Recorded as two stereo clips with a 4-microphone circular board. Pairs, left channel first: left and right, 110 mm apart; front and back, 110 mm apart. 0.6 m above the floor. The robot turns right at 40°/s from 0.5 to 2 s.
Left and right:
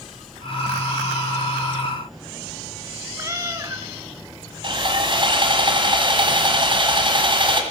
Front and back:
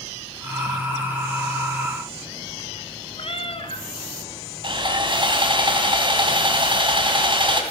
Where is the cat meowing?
30° right, 1.3 m.